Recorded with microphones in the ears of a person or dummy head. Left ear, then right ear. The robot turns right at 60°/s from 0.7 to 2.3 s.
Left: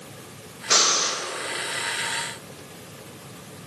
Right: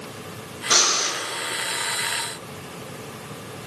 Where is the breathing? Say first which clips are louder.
Right 1 dB; 15° left (ahead or behind), 2 m; by 1.2 s 45° left (ahead or behind), 2 m.